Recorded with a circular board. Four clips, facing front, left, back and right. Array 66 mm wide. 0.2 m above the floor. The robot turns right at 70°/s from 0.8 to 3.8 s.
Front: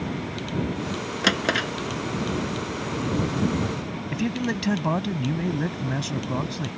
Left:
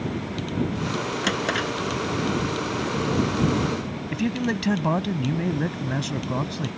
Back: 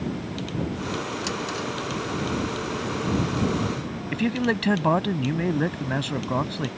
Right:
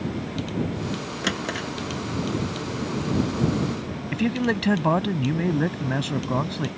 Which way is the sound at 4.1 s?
150° right.